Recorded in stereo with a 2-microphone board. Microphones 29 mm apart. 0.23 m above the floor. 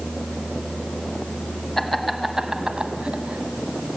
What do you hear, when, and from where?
1.8 s laughter: 10° left (ahead or behind), 1.4 m; by 4.0 s 50° right (ahead or behind), 2 m